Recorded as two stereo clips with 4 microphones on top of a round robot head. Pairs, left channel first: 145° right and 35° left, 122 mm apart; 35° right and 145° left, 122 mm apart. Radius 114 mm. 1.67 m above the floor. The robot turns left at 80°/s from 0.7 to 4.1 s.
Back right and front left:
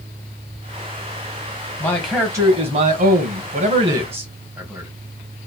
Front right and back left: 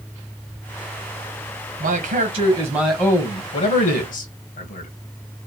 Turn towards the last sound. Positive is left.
turn(degrees=-40)